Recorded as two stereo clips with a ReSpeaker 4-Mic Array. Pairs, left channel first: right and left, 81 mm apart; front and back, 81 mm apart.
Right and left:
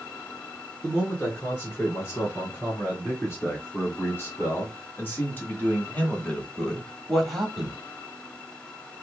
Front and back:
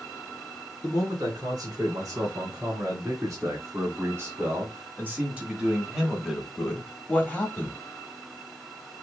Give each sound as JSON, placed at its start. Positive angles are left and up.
{"t": 0.8, "sound": "a man speaking", "azimuth_deg": -140, "distance_m": 3.5}